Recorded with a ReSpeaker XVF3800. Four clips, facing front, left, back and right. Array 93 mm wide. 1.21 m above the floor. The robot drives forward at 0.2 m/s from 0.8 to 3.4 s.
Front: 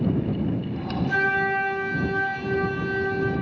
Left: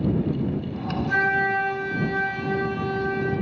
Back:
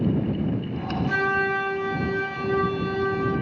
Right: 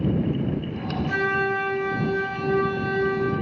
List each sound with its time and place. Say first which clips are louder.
1.1 s a flute: left 2 dB, front 1 dB; 175° right, 1.3 m